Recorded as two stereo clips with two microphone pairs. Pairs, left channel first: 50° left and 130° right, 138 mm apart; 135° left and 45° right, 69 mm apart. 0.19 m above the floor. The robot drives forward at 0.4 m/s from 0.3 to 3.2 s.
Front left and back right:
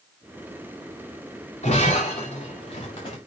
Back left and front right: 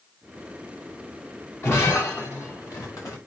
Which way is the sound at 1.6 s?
85° left.